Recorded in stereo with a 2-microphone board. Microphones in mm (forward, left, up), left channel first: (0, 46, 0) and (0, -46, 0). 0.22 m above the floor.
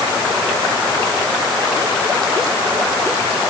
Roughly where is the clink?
No clink in this recording.